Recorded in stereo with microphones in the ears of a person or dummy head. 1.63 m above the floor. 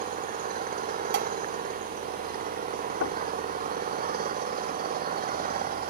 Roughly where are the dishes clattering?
Right.